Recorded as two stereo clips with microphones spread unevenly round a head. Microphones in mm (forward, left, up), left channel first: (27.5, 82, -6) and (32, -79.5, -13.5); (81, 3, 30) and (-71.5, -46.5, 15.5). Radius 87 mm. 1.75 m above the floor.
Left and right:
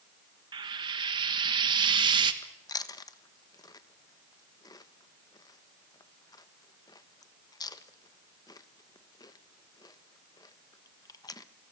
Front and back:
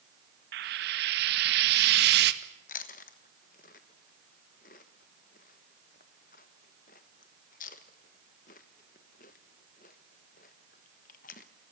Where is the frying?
150° right, 1.4 m.